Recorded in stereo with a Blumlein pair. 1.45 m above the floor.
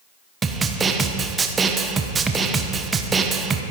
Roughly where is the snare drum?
Ahead.